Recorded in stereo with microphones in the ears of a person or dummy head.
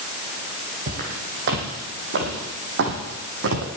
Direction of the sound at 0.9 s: 40° right (ahead or behind).